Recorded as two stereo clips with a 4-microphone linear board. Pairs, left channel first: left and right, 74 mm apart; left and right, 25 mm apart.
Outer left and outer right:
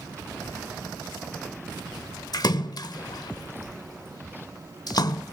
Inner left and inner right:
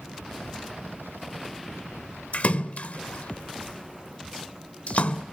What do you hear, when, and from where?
2.3 s a splash: 60° left (ahead or behind), 0.9 m